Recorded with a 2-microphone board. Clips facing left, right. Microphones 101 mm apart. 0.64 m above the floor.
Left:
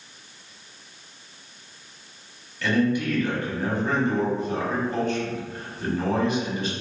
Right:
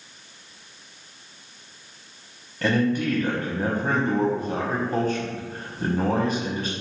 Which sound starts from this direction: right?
A man speaking, at 2.6 s.